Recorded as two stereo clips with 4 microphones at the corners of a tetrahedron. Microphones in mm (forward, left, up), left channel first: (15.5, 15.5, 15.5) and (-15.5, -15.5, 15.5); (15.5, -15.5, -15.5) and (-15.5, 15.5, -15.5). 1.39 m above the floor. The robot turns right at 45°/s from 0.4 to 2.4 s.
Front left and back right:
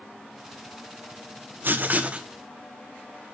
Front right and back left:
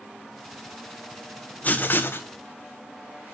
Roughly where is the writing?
Right.